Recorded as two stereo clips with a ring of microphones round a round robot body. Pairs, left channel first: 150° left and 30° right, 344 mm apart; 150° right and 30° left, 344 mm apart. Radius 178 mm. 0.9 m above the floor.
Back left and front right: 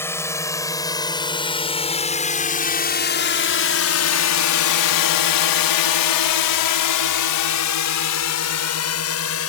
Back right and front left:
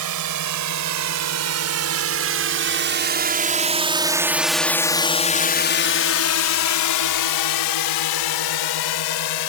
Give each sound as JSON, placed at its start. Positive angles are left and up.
{"t": 0.0, "sound": "a drone", "azimuth_deg": 65}